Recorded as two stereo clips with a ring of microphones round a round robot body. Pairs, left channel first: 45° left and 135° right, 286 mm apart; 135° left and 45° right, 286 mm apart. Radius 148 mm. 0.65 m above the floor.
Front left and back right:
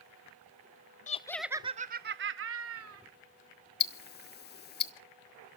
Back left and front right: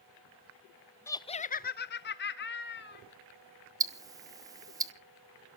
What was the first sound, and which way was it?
Laughter, 65° left.